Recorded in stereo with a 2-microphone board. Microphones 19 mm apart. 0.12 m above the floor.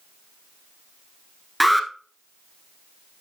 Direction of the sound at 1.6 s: Centre (ahead or behind).